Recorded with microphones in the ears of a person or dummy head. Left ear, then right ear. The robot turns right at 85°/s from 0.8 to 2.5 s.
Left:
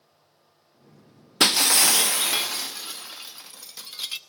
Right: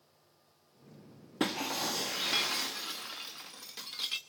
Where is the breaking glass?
80° left, 0.8 m; by 4.2 s 170° left, 0.8 m.